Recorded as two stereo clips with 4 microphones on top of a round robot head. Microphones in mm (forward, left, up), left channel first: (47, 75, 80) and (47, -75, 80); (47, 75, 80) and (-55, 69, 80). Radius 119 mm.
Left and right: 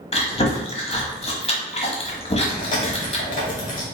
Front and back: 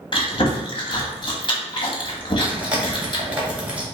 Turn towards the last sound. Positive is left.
turn(degrees=105)